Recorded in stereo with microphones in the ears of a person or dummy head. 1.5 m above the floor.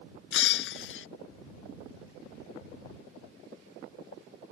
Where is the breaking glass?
70° left (ahead or behind).